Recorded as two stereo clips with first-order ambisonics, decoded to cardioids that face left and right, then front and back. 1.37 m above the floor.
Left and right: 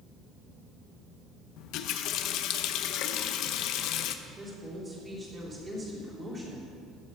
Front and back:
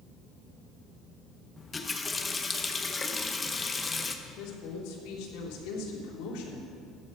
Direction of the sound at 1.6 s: 75° left.